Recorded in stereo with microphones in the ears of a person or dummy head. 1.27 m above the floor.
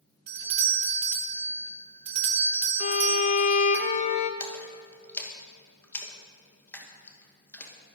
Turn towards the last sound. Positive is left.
turn(degrees=10)  # may be behind; listen again after turning